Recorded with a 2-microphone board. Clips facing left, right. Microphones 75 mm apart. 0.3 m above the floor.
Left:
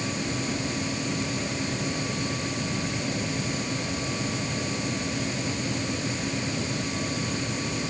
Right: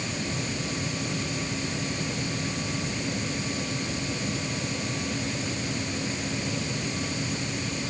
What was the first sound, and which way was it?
Only background noise.